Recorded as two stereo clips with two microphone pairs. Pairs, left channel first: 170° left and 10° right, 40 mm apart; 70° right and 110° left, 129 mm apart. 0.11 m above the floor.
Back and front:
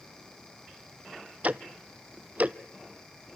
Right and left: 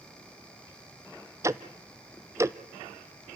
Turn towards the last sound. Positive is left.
turn(degrees=40)